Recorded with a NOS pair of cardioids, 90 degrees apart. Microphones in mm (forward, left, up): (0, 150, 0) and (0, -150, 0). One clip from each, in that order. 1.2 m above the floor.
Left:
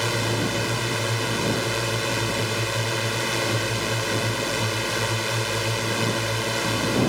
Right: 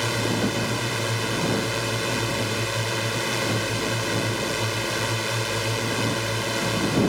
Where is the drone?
25° left.